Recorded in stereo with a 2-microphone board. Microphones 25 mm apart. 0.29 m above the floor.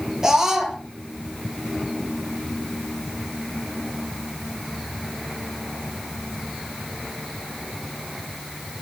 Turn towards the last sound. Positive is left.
turn(degrees=-20)  # may be behind; listen again after turning